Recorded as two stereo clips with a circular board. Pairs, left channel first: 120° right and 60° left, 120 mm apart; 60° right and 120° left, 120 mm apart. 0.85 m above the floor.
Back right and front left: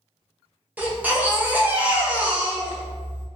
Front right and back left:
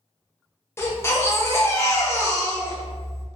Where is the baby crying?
10° right, 0.5 m.